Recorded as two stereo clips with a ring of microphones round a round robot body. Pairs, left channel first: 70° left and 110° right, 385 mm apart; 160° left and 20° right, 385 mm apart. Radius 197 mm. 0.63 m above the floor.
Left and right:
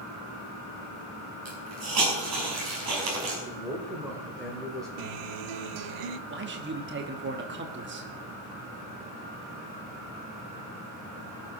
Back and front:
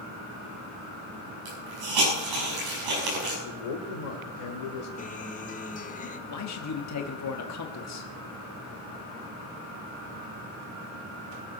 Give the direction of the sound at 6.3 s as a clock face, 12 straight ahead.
6 o'clock.